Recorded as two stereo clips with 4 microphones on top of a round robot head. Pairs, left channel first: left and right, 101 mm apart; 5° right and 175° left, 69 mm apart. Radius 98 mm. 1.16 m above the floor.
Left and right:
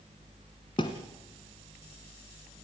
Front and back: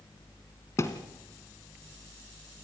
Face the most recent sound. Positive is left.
turn(degrees=35)